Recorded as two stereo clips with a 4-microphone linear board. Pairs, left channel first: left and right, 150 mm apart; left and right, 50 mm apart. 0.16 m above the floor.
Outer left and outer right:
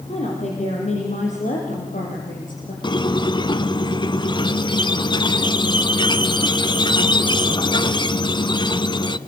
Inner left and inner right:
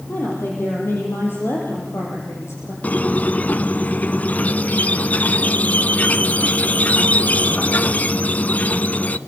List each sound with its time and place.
0.1 s a woman speaking: 50° left (ahead or behind), 7 m; by 2.7 s 65° left (ahead or behind), 6.5 m
2.8 s a squeak: 30° left (ahead or behind), 0.9 m